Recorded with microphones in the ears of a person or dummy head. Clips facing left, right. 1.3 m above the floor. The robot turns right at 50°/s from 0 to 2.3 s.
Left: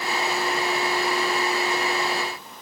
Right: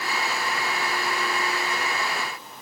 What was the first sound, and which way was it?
Only background noise.